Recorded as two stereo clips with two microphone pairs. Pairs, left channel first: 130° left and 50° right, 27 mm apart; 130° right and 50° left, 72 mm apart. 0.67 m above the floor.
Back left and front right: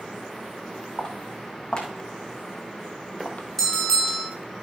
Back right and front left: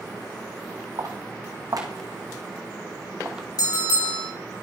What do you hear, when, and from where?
1.0 s footsteps: 70° left, 3 m; by 3.5 s 135° left, 1.5 m
3.6 s a bell: 150° right, 4.5 m